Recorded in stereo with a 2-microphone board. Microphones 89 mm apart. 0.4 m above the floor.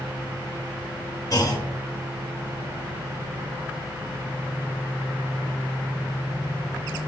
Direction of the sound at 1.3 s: 40° left (ahead or behind).